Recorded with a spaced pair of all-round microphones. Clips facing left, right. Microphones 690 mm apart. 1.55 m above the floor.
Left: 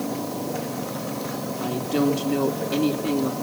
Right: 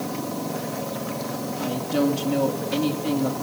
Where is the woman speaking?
20° right (ahead or behind), 3.5 m.